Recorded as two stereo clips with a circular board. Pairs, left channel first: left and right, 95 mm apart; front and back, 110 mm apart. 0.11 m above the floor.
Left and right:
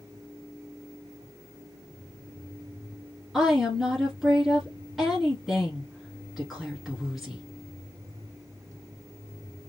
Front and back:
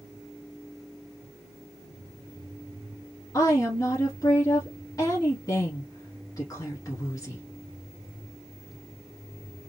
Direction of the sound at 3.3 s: Straight ahead.